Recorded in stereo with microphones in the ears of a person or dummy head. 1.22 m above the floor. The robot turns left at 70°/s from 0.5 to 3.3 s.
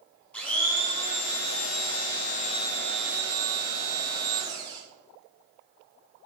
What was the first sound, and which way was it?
A blender, 175° left.